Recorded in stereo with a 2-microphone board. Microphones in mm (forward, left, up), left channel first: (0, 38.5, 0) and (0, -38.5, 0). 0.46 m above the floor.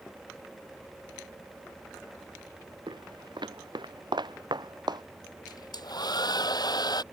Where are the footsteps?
80° right; by 5.0 s 65° right (ahead or behind).